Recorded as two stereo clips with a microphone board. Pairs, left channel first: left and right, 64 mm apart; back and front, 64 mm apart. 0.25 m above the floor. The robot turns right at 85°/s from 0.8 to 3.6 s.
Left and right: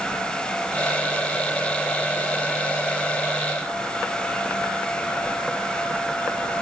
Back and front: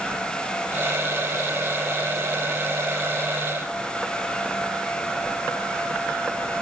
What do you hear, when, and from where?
Only background noise.